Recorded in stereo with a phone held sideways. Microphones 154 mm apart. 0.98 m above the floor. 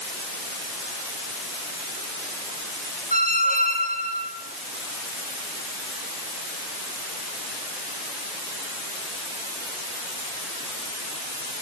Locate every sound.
3.1 s a squeak: 60° left (ahead or behind), 2.5 m